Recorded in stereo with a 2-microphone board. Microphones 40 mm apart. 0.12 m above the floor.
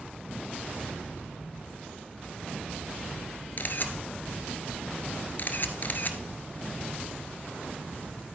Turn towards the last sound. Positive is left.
turn(degrees=50)  # may be behind; listen again after turning